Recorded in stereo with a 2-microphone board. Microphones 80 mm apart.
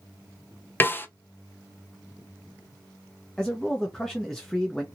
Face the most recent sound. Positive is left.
turn(degrees=5)  # may be behind; listen again after turning